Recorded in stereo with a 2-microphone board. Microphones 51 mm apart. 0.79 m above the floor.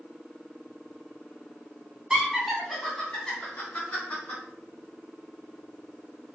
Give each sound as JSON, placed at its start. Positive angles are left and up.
{"t": 2.1, "sound": "laughter", "side_deg": -15, "distance_m": 0.9}